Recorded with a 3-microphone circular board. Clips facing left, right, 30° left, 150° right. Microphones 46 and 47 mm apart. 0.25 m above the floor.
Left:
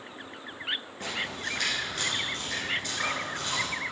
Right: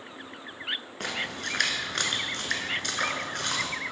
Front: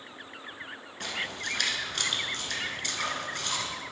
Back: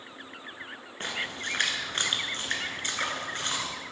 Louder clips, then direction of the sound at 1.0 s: Right 3 dB, back 1 dB; 95° right.